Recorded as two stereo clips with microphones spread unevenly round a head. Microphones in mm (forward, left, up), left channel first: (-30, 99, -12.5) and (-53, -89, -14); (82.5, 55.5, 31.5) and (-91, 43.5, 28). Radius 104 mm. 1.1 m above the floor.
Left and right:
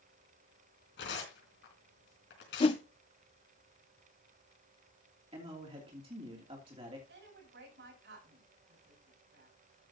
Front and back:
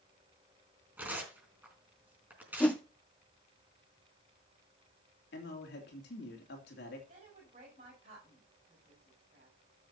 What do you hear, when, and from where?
1.0 s tearing paper: 105° left, 4 m
2.6 s a whoosh: 75° left, 0.5 m
5.3 s a man speaking: 30° right, 2.5 m
7.1 s a woman speaking: 115° right, 7 m